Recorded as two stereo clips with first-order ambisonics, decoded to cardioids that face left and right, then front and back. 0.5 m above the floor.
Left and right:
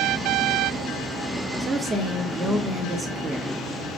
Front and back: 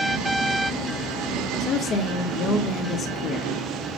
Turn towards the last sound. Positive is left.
turn(degrees=-25)